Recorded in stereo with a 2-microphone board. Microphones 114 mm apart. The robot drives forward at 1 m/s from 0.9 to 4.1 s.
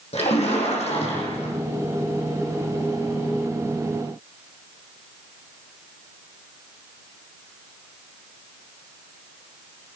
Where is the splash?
70° left (ahead or behind), 9 m; by 1.5 s 65° left (ahead or behind), 9 m.